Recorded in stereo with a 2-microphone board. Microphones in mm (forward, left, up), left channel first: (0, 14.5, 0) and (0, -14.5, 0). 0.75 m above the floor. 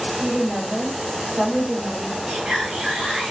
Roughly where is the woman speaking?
Right.